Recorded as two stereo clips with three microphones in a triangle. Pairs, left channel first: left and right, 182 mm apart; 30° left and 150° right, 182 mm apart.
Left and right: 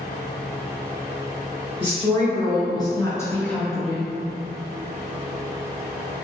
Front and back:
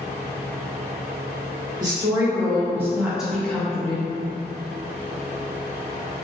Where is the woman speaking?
145° left, 1.4 m; by 4.2 s 20° right, 0.8 m.